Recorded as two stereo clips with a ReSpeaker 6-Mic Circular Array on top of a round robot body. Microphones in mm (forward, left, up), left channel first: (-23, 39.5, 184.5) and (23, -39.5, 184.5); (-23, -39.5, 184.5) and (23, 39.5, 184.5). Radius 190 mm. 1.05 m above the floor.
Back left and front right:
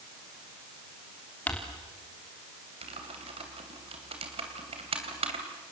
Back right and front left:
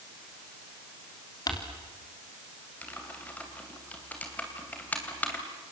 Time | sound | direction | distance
1.5 | crumpling | 165° right | 3.5 m
2.8 | typing on a keyboard | 45° right | 3 m